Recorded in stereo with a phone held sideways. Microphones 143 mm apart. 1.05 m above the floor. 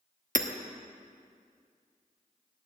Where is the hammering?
70° right (ahead or behind), 1.1 m.